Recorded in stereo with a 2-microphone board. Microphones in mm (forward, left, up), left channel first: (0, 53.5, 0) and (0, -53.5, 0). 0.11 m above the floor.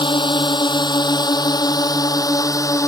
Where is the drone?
50° left (ahead or behind); by 2.9 s 30° left (ahead or behind).